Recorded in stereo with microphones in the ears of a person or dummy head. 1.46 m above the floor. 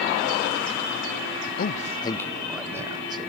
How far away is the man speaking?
About 0.5 m.